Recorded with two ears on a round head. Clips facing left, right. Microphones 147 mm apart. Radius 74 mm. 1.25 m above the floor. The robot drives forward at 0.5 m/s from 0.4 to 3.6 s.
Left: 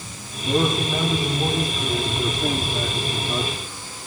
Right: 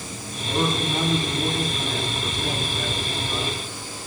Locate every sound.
0.4 s a man speaking: 15° left (ahead or behind), 6.5 m; by 3.5 s 20° left (ahead or behind), 5 m